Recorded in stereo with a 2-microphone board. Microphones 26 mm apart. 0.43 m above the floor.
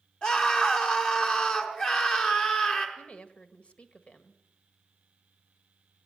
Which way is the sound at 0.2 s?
35° left (ahead or behind).